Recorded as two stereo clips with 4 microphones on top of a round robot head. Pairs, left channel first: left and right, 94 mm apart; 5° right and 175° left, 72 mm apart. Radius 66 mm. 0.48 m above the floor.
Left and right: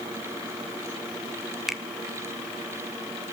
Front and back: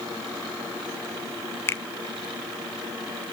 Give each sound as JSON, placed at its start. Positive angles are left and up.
{"t": 1.7, "sound": "a finger snap", "azimuth_deg": -5, "distance_m": 1.3}